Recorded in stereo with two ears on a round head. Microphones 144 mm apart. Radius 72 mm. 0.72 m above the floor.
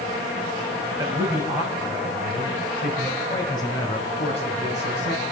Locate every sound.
1.0 s a man speaking: 25° right (ahead or behind), 4 m; by 5.2 s 50° left (ahead or behind), 5 m